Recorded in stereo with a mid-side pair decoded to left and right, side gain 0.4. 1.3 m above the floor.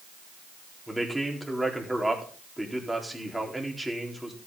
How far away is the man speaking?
About 4 m.